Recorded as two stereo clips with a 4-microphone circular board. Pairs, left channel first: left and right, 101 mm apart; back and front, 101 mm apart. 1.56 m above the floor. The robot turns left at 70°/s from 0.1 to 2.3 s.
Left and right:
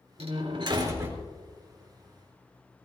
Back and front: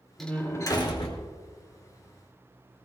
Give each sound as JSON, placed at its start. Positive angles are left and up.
{"t": 0.2, "sound": "a door slam", "azimuth_deg": -95, "distance_m": 3.5}